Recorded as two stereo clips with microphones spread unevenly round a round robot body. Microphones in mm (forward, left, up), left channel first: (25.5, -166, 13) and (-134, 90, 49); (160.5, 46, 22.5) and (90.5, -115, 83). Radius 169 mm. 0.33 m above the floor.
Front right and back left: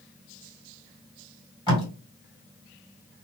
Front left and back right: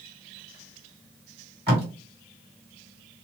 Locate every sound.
1.7 s tape being pulled: 110° right, 1.8 m